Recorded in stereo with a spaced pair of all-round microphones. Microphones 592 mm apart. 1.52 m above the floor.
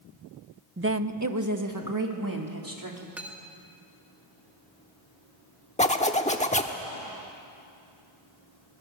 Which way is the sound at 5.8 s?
10° left (ahead or behind).